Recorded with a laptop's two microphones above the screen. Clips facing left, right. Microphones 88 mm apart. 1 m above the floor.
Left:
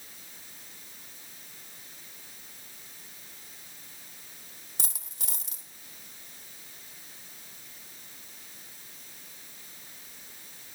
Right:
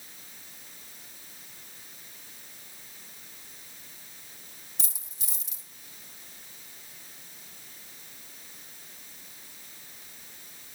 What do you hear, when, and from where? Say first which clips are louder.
4.8 s a dropped coin: left 7 dB; 65° left (ahead or behind), 1.6 m